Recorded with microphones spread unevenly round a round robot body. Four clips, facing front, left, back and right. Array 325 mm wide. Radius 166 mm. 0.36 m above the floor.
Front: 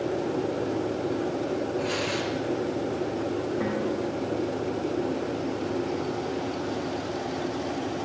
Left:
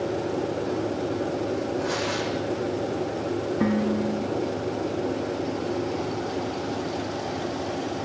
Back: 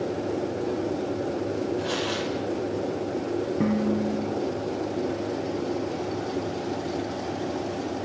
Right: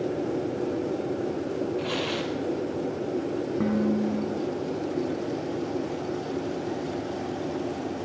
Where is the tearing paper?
90° right, 2.5 m.